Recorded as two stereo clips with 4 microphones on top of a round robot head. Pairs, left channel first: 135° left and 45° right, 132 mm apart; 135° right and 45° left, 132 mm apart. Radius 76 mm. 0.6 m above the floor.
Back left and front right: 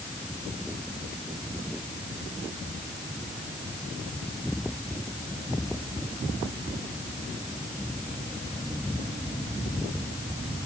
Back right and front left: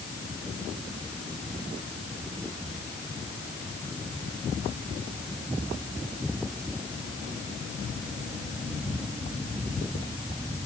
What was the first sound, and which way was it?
Only background noise.